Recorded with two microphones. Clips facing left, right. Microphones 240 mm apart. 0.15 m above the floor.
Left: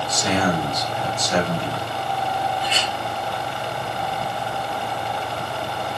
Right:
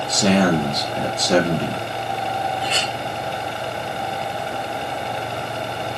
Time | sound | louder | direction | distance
0.1 | a man speaking | right 6 dB | 70° right (ahead or behind) | 4.5 m
2.6 | a clink | right 1 dB | 70° right (ahead or behind) | 8 m